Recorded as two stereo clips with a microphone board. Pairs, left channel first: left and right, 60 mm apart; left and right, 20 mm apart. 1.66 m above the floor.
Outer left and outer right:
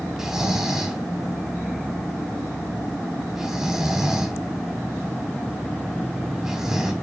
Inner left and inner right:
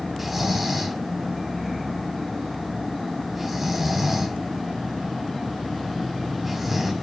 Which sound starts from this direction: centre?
Snoring, at 0.2 s.